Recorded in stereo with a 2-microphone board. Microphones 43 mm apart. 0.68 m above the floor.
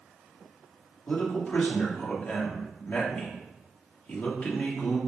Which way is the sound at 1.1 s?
35° left (ahead or behind).